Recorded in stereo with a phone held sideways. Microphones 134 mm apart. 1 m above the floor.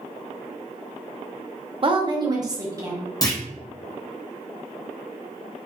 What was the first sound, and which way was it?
A woman speaking, 40° right (ahead or behind).